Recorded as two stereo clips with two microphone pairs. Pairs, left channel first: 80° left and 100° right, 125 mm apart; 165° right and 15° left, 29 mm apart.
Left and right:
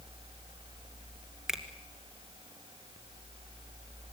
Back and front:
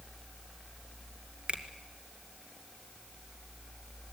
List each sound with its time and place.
1.5 s a finger snap: 15° right, 2 m